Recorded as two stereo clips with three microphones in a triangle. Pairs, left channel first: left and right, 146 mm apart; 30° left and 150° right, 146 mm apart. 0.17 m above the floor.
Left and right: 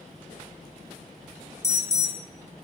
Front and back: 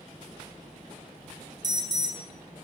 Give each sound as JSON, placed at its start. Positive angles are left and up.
{"t": 1.6, "sound": "an alarm", "azimuth_deg": 155, "distance_m": 3.5}